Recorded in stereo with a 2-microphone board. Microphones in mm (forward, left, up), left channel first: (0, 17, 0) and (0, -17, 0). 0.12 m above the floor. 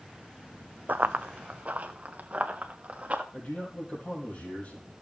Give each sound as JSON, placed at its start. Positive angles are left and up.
{"t": 0.9, "sound": "running footsteps", "side_deg": -60, "distance_m": 0.5}
{"t": 3.3, "sound": "a man speaking", "side_deg": 50, "distance_m": 3.5}